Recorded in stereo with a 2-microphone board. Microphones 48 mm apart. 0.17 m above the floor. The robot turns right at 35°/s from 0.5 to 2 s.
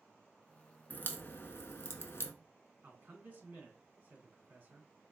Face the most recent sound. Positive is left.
turn(degrees=-40)  # may be behind; listen again after turning